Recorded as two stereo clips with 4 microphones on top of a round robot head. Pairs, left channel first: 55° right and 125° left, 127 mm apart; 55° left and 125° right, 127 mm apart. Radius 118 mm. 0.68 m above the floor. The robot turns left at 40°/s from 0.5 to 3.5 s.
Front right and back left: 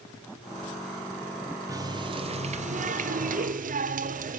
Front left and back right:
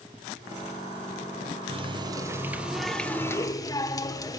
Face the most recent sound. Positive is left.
turn(degrees=120)